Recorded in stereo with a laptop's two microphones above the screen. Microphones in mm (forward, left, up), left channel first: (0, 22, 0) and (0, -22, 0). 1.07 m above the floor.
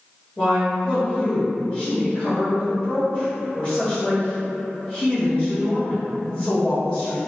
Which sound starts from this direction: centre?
A woman speaking, at 0.4 s.